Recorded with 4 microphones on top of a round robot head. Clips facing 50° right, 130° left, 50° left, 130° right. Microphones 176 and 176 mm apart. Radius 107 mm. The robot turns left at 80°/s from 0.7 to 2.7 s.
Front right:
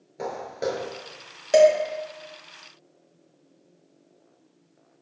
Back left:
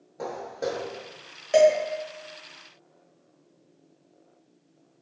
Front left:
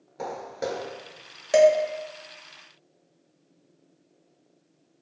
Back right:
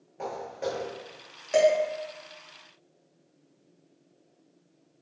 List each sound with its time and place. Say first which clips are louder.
0.2 s footsteps: front right 2 dB, front left 1 dB; 15° left, 0.6 m; by 0.9 s 5° right, 0.6 m
1.5 s dishes clattering: front right 2 dB, front left 4 dB; straight ahead, 1.1 m; by 1.7 s 15° right, 1.1 m